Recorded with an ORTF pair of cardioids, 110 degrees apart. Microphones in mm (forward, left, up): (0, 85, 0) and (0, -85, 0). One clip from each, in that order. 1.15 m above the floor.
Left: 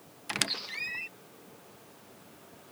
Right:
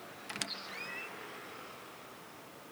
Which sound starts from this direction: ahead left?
A squeak, at 0.3 s.